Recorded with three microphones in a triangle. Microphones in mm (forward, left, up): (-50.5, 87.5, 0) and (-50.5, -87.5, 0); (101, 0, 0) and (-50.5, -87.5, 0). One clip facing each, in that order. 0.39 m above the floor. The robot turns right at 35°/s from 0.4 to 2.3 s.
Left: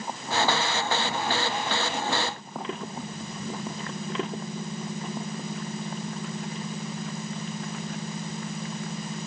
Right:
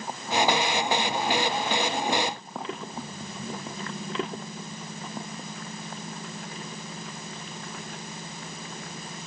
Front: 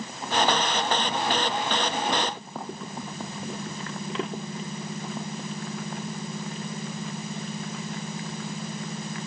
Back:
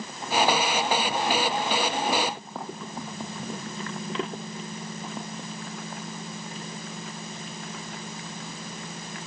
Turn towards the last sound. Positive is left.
No sound to turn to.